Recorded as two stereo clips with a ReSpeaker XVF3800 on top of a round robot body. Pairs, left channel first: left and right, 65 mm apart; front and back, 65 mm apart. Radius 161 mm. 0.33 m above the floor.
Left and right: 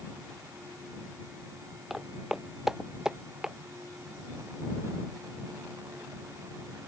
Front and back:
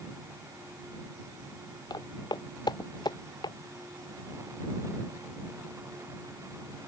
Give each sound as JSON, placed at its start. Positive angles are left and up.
{"t": 1.9, "sound": "footsteps", "azimuth_deg": -5}